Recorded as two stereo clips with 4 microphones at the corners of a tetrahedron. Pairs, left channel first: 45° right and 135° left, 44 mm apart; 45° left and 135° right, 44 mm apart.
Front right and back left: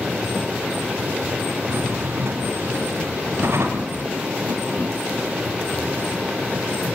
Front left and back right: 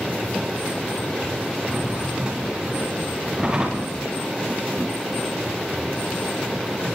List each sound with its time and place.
1.6 s a drawer: 160° left, 10 m